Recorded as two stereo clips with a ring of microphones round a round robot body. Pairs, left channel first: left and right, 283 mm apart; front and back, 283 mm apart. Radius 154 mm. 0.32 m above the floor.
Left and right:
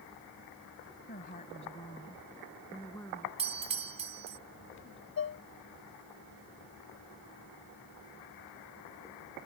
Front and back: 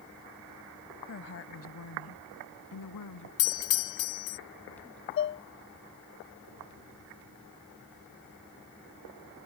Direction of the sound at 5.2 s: 40° left.